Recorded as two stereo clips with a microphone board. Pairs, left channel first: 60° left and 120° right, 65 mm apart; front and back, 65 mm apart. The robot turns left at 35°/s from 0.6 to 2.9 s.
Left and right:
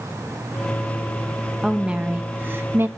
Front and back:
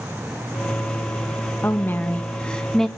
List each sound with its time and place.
1.6 s a woman speaking: 40° right, 1.2 m; by 2.9 s 85° right, 1.2 m